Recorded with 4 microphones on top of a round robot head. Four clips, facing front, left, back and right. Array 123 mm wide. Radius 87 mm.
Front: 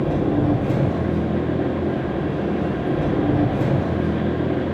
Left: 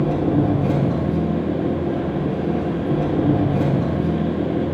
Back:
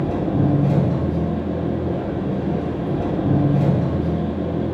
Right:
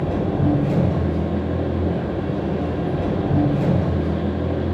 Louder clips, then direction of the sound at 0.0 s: Left 3 dB, front 1 dB; 110° left.